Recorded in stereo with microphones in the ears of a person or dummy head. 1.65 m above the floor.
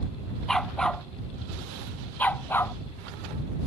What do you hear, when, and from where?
0.5 s a dog barking: 10° left (ahead or behind); by 2.8 s 20° left (ahead or behind)